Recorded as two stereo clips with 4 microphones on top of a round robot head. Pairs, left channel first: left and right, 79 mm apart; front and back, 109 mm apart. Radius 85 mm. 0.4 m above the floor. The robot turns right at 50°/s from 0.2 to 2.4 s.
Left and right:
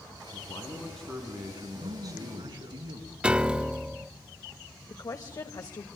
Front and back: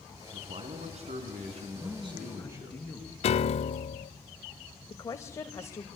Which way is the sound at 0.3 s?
145° left.